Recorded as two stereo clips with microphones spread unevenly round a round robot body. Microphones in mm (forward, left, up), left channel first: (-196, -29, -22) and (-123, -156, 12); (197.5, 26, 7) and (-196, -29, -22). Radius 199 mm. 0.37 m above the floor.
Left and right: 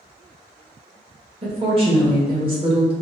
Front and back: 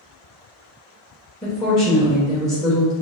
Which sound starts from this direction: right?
A woman speaking, at 1.4 s.